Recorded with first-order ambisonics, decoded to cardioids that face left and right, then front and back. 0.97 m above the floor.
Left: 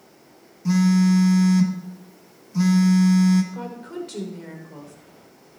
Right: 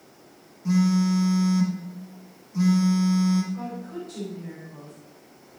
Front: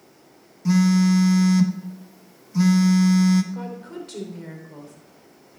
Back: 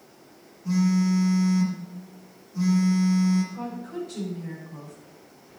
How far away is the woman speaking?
About 3 m.